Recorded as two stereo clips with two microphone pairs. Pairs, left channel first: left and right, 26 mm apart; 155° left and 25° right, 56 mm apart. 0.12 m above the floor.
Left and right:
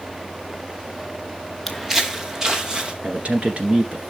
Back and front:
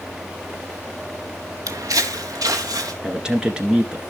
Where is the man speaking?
95° right, 1.8 m.